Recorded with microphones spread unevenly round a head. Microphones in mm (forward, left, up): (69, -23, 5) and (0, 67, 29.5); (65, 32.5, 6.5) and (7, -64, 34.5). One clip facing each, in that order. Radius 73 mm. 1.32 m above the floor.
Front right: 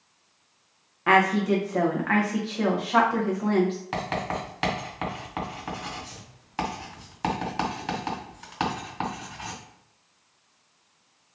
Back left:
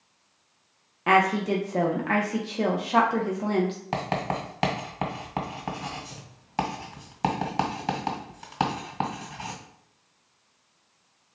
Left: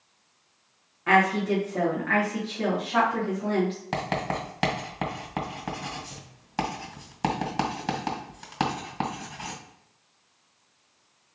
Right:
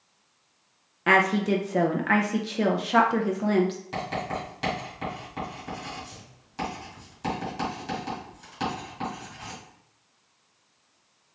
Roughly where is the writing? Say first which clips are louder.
Back left 1 dB, left 2 dB; left.